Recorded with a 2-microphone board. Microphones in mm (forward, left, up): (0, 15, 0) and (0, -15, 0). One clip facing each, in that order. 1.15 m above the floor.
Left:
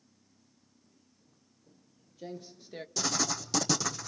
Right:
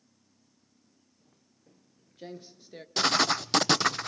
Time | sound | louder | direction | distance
1.2 | footsteps | right 1 dB | 60° right (ahead or behind) | 2 m
3.0 | writing | right 8 dB | 50° right (ahead or behind) | 0.7 m